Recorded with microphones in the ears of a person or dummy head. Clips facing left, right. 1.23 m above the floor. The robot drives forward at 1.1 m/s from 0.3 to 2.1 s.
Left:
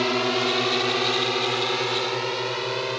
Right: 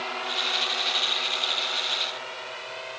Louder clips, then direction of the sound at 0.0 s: Left 12 dB; 65° left (ahead or behind).